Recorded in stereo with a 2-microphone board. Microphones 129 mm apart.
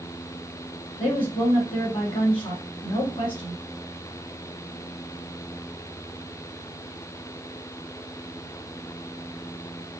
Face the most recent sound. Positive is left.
turn(degrees=40)  # may be behind; listen again after turning